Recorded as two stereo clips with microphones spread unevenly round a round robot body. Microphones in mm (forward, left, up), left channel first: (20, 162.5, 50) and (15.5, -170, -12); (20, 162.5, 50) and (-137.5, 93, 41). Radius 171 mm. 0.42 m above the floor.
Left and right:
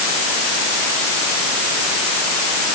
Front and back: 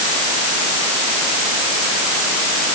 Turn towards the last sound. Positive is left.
No sound to turn to.